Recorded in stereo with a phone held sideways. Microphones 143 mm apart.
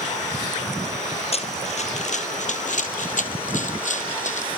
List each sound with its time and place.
1.3 s running footsteps: 45° left (ahead or behind), 1.8 m; by 4.5 s 55° left (ahead or behind), 2.5 m